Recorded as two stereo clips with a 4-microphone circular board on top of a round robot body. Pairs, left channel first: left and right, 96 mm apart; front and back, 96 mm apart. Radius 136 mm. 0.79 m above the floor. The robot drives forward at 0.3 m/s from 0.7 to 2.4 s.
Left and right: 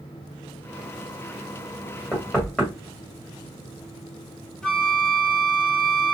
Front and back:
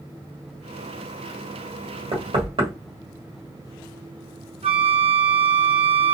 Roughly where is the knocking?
Behind.